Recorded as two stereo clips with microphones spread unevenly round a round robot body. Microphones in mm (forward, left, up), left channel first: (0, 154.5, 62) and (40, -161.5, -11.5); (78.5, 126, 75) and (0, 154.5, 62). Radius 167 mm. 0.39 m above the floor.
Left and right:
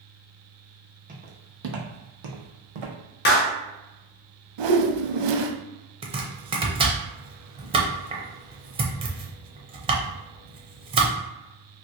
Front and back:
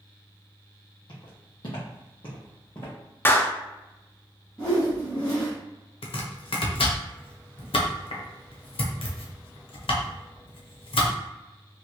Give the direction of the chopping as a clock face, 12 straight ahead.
12 o'clock.